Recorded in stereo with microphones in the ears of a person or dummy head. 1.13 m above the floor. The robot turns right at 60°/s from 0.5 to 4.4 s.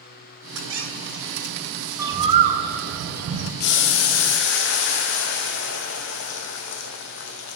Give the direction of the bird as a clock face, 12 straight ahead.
6 o'clock.